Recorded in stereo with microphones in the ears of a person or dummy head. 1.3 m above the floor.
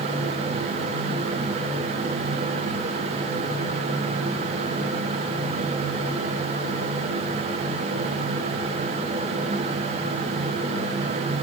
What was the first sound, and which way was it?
Only background noise.